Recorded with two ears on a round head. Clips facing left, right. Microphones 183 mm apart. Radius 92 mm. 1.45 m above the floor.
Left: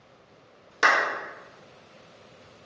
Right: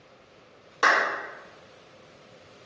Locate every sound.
0.8 s a clap: 25° left (ahead or behind), 1.4 m